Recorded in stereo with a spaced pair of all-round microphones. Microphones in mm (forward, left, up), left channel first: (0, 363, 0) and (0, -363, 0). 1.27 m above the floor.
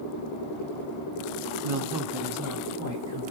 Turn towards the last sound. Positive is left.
turn(degrees=10)  # may be behind; listen again after turning